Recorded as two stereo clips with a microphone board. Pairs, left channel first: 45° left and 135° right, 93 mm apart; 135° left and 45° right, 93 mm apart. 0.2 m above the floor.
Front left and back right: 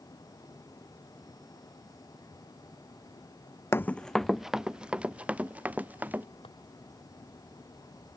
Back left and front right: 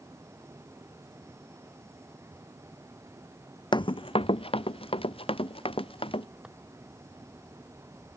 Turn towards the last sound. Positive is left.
turn(degrees=35)